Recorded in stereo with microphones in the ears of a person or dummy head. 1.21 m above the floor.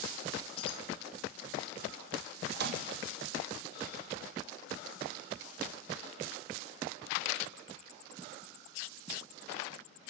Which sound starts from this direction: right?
A microwave, at 2.5 s.